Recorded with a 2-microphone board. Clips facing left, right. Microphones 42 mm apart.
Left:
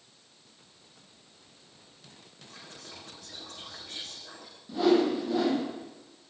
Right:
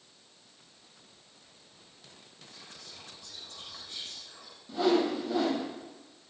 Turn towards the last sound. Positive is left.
turn(degrees=0)  # may be behind; listen again after turning